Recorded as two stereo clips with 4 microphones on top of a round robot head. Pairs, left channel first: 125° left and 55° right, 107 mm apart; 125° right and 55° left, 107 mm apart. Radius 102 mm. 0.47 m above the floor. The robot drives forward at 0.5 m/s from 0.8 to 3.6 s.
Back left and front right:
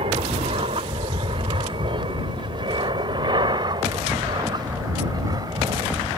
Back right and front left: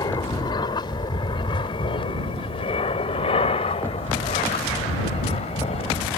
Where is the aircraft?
80° right; by 6.2 s 110° right.